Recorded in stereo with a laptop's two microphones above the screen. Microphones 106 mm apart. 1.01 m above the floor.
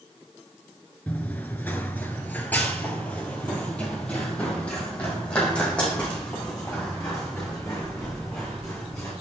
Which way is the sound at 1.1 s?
15° left (ahead or behind).